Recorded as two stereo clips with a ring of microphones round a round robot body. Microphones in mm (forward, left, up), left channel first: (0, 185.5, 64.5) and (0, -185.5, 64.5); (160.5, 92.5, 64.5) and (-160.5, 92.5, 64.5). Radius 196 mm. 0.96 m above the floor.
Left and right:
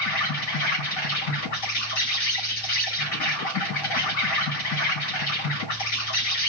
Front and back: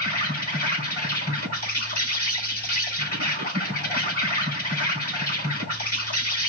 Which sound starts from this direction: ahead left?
An insect, at 0.0 s.